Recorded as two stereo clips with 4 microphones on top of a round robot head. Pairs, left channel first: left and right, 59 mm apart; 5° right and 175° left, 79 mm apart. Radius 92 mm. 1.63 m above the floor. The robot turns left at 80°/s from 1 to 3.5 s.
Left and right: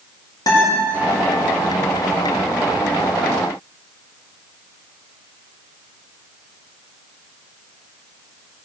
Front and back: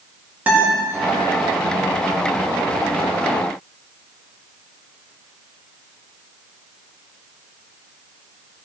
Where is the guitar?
105° left, 3.5 m.